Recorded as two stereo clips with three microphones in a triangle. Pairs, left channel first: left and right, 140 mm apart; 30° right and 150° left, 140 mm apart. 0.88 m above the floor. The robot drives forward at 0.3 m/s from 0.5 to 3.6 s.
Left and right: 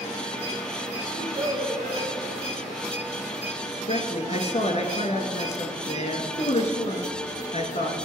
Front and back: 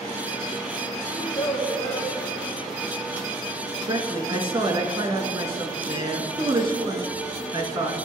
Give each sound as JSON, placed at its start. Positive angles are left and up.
{"t": 1.1, "sound": "a child speaking", "azimuth_deg": -95, "distance_m": 2.0}
{"t": 3.9, "sound": "a man speaking", "azimuth_deg": 110, "distance_m": 1.3}